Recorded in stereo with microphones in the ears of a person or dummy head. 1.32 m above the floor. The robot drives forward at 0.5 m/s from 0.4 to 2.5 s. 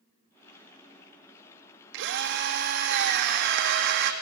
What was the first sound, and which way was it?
A drill, 65° right (ahead or behind).